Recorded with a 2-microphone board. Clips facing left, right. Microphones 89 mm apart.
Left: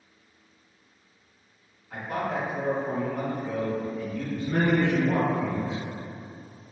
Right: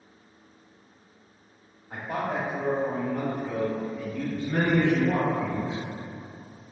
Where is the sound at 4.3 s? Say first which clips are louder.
Left 1 dB; 15° left (ahead or behind), 1.8 m.